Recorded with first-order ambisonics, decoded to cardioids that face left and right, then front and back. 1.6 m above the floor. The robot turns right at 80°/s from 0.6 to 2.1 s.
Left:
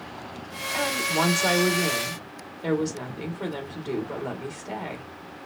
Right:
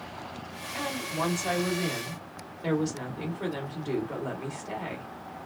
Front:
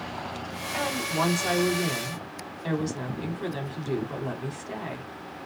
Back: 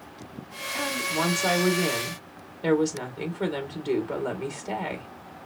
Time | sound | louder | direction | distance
0.7 | a woman speaking | left 7 dB, even | 50° left | 2.5 m